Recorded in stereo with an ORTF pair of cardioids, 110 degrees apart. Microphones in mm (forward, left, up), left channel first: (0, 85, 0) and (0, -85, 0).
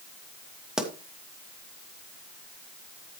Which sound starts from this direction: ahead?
A pop, at 0.8 s.